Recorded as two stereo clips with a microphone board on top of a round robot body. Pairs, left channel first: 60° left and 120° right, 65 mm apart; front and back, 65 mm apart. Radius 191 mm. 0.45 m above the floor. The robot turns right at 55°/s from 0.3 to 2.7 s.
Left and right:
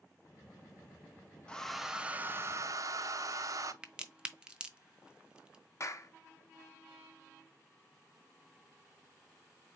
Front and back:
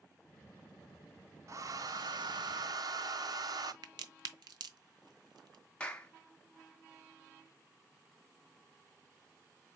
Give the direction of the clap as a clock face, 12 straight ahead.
10 o'clock.